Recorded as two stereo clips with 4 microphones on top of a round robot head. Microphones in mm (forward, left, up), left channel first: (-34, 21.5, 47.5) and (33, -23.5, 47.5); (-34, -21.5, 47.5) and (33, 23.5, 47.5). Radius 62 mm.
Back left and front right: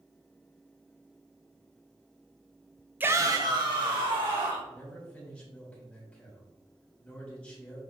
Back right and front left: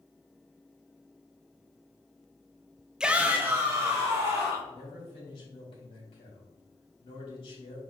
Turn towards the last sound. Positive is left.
turn(degrees=-135)